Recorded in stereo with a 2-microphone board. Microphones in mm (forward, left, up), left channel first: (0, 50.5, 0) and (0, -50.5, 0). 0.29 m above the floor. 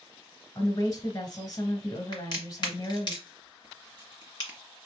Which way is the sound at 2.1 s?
45° left (ahead or behind).